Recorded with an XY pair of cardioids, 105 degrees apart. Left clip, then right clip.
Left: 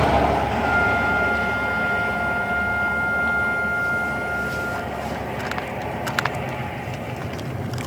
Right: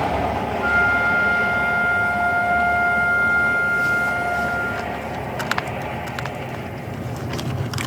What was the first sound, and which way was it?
A flute, 30° right.